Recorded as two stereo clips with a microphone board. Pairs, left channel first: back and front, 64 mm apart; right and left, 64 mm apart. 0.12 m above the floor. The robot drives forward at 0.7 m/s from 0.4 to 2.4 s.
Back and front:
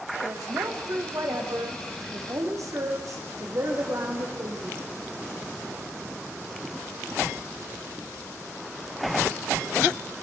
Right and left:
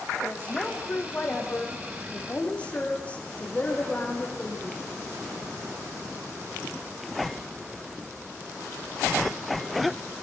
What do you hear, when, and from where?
0.2 s a woman speaking: 20° right, 9 m